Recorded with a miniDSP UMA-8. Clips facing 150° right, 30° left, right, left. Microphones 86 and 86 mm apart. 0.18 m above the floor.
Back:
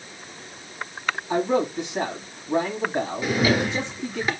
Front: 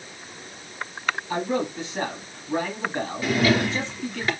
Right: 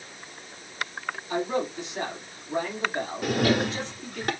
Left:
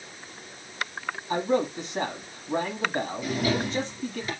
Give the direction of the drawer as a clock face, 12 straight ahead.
2 o'clock.